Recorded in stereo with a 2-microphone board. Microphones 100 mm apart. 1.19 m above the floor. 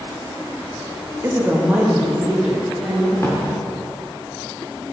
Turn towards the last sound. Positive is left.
turn(degrees=25)  # may be behind; listen again after turning